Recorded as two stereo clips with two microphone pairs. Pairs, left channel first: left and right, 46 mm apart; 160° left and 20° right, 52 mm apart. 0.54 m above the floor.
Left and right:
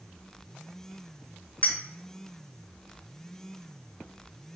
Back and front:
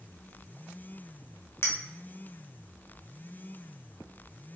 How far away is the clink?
About 1.0 m.